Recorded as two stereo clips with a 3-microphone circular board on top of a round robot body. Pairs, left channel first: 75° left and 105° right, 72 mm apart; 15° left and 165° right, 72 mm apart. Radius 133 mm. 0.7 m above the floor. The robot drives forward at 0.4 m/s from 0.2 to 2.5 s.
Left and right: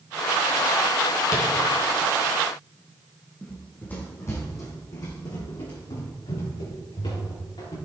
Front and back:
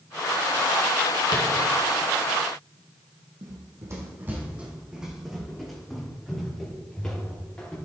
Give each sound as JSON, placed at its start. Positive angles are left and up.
{"t": 1.3, "sound": "tapping", "azimuth_deg": 35, "distance_m": 2.5}
{"t": 3.4, "sound": "running footsteps", "azimuth_deg": 160, "distance_m": 2.0}